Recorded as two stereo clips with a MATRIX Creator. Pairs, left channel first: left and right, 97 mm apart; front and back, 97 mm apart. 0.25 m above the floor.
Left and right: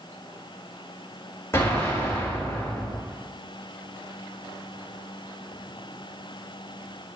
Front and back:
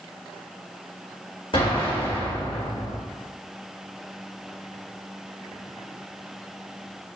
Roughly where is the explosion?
Ahead left.